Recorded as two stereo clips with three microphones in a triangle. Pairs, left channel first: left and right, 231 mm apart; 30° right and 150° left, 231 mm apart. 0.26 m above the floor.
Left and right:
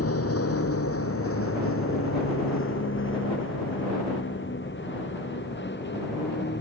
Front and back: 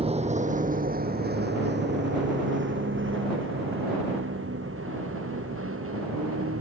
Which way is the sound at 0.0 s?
85° left.